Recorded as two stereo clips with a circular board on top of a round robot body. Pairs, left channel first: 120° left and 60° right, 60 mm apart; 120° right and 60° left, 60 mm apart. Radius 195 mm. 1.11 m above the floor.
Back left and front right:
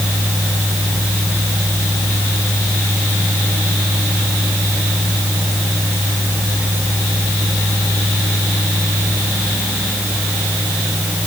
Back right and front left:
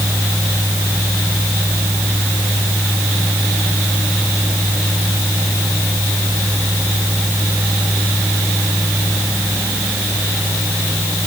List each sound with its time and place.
Only background noise.